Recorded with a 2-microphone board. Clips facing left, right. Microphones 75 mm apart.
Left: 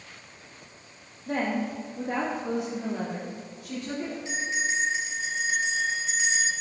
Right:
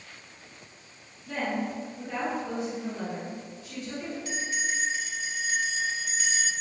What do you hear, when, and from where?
1.3 s a woman speaking: 40° left (ahead or behind), 1.8 m; by 4.2 s 85° left, 4 m
4.2 s a bell: 25° left (ahead or behind), 3 m